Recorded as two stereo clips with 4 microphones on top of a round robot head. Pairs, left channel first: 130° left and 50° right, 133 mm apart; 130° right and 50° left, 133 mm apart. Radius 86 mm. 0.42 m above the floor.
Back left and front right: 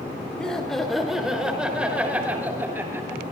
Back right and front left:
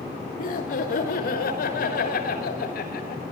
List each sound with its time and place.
0.4 s laughter: 145° right, 6 m; by 3.2 s 125° right, 8.5 m